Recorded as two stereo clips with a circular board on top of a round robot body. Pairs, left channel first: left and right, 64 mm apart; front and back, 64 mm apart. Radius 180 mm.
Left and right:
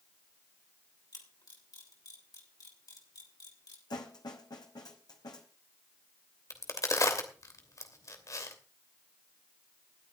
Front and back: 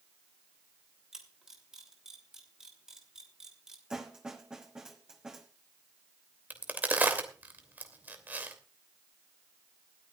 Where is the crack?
115° left, 3 m.